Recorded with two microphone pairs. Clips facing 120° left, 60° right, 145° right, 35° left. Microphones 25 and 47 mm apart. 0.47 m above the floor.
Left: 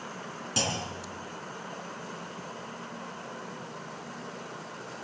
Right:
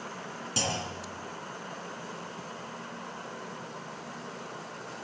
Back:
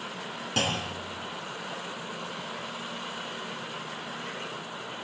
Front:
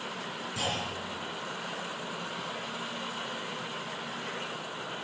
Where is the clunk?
160° right, 3 m.